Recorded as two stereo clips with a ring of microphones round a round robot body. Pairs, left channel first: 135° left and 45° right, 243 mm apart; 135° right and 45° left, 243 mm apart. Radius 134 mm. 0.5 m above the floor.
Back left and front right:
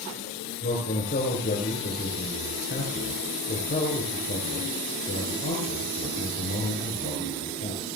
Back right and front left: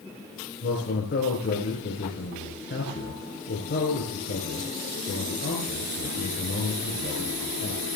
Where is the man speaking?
175° right, 4 m.